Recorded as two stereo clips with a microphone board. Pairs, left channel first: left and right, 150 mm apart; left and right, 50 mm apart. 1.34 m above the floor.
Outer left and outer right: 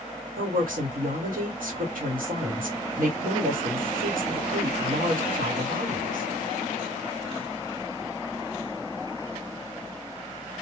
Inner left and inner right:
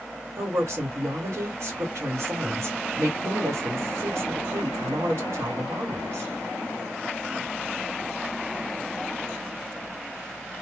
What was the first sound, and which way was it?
A woman speaking, 75° right (ahead or behind).